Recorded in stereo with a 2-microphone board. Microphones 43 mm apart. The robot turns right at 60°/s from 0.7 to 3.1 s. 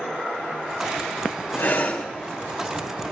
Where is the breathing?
60° left (ahead or behind), 1.9 m; by 2.1 s 30° left (ahead or behind), 1.9 m.